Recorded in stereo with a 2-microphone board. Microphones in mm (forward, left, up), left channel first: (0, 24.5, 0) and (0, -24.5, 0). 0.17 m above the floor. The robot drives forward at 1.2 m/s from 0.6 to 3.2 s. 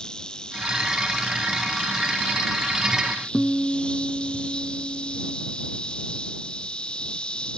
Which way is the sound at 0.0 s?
15° left (ahead or behind).